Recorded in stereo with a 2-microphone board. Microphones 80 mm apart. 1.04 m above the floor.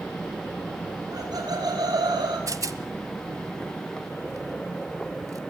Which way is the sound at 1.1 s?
55° right (ahead or behind).